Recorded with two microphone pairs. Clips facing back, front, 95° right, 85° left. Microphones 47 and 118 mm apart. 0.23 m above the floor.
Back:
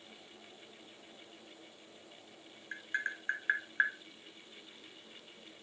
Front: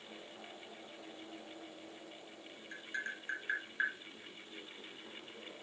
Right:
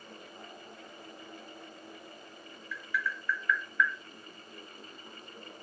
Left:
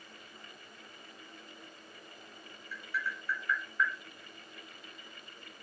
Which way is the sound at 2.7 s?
130° left.